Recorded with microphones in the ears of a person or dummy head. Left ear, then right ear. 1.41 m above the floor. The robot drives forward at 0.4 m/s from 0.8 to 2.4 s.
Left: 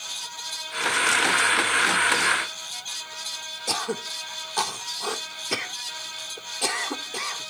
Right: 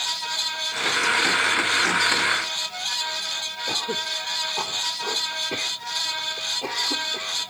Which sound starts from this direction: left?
Throat clearing, at 3.7 s.